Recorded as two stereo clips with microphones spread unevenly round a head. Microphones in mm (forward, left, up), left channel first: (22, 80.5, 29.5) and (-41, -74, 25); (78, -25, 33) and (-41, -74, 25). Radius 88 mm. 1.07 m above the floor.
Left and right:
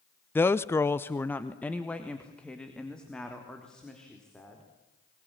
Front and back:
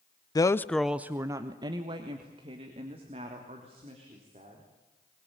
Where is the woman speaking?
Straight ahead, 0.7 m; by 4.6 s 155° left, 4.5 m.